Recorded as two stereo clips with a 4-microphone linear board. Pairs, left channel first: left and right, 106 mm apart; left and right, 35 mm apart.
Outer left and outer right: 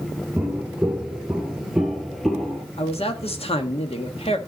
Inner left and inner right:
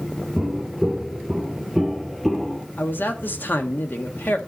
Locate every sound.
0.4 s footsteps: 15° right (ahead or behind), 1.1 m; by 2.6 s centre (ahead or behind), 1.6 m
2.8 s a man speaking: 65° left (ahead or behind), 1.5 m